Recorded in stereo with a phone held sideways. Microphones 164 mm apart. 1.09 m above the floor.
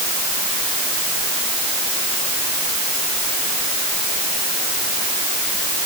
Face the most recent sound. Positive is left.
No sound to turn to.